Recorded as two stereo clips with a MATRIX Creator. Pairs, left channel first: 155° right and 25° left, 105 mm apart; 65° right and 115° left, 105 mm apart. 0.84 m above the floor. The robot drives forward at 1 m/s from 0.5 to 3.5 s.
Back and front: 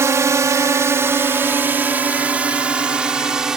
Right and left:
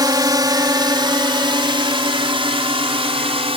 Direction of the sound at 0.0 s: 75° left.